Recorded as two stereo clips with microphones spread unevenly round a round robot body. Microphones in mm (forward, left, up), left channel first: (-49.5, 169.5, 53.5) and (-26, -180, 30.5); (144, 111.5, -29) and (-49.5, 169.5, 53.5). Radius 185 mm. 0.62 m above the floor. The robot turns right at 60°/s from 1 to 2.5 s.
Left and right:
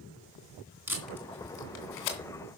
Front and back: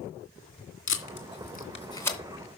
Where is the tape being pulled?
Straight ahead, 2.5 m; by 2.2 s 70° left, 2.5 m.